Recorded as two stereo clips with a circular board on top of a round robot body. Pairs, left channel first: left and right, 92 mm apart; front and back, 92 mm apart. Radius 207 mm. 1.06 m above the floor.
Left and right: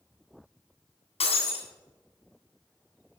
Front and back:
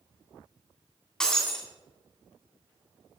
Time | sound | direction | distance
1.2 | breaking glass | 85° left | 2.5 m